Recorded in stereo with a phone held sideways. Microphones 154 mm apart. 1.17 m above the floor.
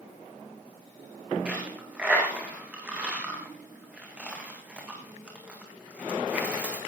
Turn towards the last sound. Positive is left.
turn(degrees=-10)  # may be behind; listen again after turning